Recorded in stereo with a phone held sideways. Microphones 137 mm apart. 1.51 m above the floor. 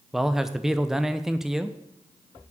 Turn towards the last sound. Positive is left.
turn(degrees=-5)  # may be behind; listen again after turning